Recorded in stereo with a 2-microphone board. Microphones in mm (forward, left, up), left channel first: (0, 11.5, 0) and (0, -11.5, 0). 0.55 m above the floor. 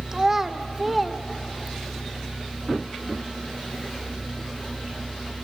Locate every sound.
0.1 s a child speaking: 25° right (ahead or behind), 1.2 m; by 2.0 s 15° left (ahead or behind), 1.6 m